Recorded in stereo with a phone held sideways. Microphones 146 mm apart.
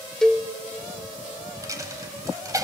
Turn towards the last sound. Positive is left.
turn(degrees=-25)  # may be behind; listen again after turning